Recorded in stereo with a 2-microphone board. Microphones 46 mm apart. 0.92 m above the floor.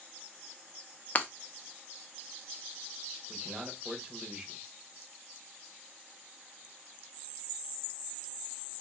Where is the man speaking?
20° right (ahead or behind), 1.1 m.